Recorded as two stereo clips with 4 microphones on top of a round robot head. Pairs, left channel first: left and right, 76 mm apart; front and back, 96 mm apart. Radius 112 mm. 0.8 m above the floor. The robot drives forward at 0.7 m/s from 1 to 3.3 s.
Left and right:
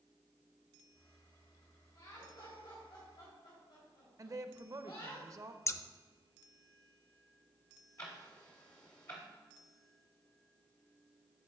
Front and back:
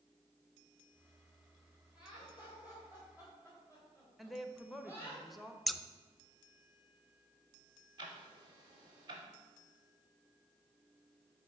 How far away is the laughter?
About 3 m.